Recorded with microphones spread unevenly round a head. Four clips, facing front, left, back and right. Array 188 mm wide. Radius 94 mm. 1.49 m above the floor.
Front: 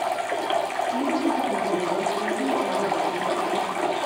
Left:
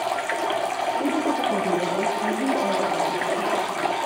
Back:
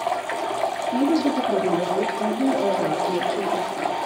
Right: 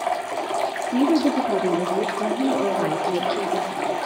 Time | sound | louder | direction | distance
0.9 | a woman speaking | right 8 dB, back 5 dB | 120° right | 4.5 m